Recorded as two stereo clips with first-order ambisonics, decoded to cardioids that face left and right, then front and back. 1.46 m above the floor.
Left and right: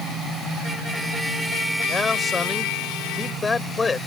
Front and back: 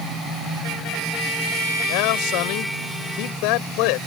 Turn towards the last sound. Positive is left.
turn(degrees=15)